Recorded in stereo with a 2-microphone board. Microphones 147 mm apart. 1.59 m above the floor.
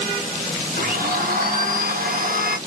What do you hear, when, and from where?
0.8 s a blender: 70° right (ahead or behind), 0.9 m